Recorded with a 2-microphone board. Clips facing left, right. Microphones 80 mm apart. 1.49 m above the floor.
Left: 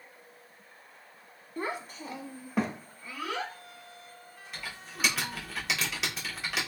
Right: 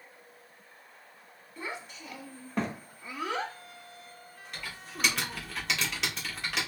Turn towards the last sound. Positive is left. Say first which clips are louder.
# even
turn(degrees=5)  # may be behind; listen again after turning